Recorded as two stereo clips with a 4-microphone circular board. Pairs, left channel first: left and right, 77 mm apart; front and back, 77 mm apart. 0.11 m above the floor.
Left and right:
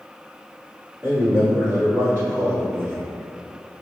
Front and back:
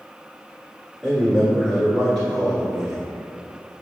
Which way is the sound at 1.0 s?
85° right.